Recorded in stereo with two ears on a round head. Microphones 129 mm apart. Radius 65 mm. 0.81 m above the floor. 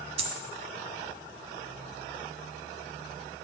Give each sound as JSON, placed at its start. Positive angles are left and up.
{"t": 0.2, "sound": "a dropped coin", "side_deg": -45, "distance_m": 1.8}